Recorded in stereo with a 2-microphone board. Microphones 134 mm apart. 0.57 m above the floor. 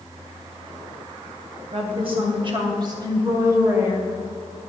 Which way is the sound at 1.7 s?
50° right (ahead or behind).